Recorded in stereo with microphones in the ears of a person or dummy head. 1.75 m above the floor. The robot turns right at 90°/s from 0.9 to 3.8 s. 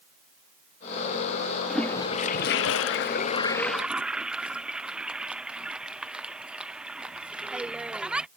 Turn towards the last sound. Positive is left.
turn(degrees=-5)  # may be behind; listen again after turning